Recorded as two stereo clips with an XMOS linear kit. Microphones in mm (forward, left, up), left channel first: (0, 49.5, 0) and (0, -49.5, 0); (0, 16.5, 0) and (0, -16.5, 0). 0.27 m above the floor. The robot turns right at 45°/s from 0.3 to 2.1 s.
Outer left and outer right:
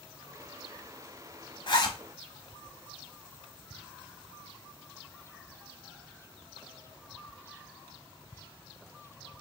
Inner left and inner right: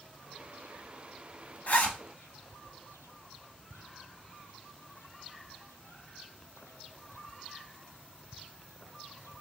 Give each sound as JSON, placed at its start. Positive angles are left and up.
{"t": 1.7, "sound": "a zipper", "side_deg": 50, "distance_m": 0.8}